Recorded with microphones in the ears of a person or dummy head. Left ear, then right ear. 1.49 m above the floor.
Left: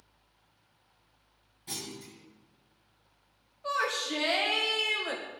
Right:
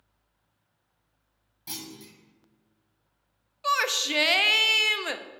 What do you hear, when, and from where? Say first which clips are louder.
1.7 s a clunk: even; 30° right (ahead or behind), 1.7 m
3.6 s a shout: right 5 dB; 70° right (ahead or behind), 0.6 m